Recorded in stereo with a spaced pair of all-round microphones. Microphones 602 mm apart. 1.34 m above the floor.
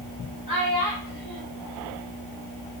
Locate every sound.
0.5 s a child speaking: 40° left (ahead or behind), 4 m